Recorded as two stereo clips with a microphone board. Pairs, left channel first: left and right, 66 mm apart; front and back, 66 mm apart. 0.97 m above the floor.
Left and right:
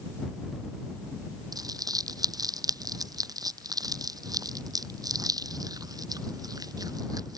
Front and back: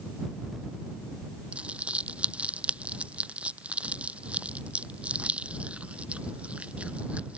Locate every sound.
1.5 s crumpling: 110° right